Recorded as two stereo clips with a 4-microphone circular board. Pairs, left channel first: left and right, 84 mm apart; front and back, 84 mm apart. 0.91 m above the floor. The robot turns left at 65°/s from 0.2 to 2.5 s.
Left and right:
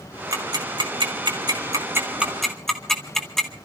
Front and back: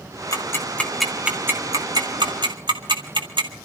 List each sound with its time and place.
0.3 s ticking: 45° right, 2 m; by 3.5 s 175° left, 2 m